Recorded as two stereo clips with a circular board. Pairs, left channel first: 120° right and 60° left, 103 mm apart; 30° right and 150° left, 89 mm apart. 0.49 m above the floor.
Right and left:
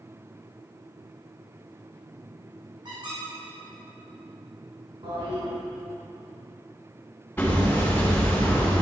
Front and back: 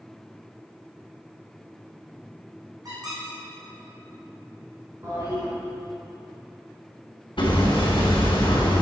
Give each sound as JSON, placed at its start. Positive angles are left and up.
{"t": 2.9, "sound": "a squeak", "azimuth_deg": 100, "distance_m": 4.0}
{"t": 5.0, "sound": "a toilet flushing", "azimuth_deg": 95, "distance_m": 4.0}
{"t": 7.4, "sound": "hammering", "azimuth_deg": -50, "distance_m": 3.5}